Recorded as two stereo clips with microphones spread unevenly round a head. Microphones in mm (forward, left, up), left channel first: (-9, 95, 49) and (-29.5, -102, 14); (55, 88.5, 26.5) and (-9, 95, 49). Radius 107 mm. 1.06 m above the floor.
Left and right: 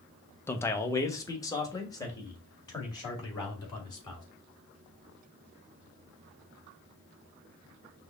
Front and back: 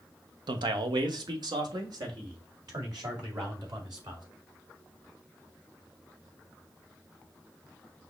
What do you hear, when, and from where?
0.5 s a man speaking: 165° left, 0.6 m; by 4.2 s 155° left, 3 m